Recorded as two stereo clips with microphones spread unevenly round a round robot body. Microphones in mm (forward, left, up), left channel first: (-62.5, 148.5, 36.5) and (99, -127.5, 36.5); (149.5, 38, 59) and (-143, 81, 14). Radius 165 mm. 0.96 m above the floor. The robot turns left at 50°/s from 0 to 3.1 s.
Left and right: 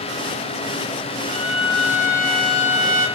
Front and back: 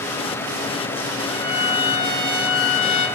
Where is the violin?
15° left, 1.2 m; by 3.1 s 75° right, 1.2 m.